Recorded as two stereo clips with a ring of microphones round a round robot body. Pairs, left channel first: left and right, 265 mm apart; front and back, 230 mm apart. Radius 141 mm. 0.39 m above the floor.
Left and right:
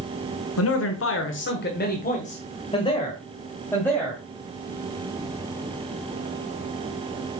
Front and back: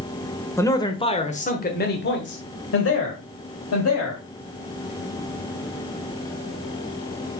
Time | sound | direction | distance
0.6 | a man speaking | 75° left | 1.3 m